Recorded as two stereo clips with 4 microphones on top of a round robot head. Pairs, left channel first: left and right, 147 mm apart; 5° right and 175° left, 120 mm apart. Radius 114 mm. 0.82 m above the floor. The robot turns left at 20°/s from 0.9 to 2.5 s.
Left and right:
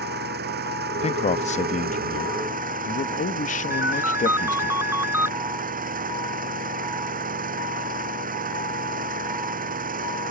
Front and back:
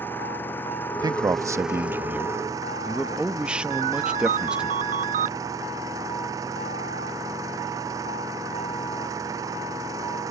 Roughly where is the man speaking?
Behind left.